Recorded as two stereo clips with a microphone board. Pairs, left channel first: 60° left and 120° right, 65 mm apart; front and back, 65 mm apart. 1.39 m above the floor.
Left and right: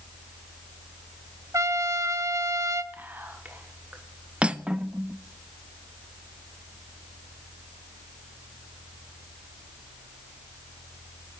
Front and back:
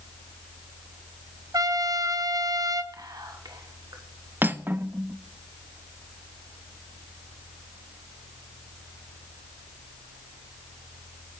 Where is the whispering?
Straight behind, 1.1 m.